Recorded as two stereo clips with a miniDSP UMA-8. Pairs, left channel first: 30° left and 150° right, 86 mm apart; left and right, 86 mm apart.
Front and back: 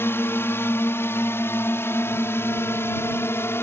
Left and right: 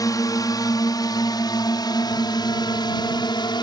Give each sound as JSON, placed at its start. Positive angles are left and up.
{"t": 0.0, "sound": "a drone", "azimuth_deg": 80}